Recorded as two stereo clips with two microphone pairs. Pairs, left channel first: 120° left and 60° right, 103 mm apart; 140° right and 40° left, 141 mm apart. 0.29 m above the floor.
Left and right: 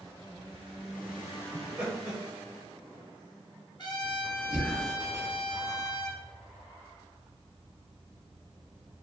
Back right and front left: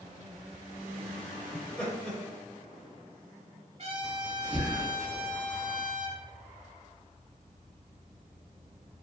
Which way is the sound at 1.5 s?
75° right.